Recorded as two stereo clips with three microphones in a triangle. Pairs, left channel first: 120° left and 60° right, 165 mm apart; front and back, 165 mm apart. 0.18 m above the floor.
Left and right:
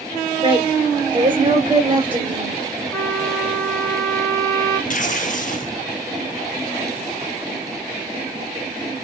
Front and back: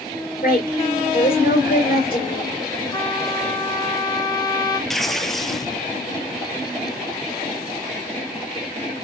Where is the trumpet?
60° left, 1.6 m.